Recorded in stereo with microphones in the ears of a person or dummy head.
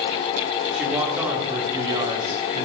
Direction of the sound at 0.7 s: Centre (ahead or behind).